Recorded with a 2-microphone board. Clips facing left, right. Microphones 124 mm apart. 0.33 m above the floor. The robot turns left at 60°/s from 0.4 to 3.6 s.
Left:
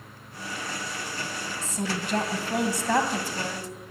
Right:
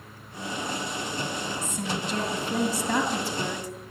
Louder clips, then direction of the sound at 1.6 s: Even; 145° left.